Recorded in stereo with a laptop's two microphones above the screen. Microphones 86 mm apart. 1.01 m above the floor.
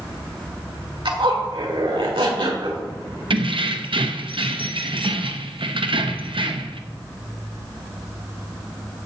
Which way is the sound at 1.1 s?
75° right (ahead or behind).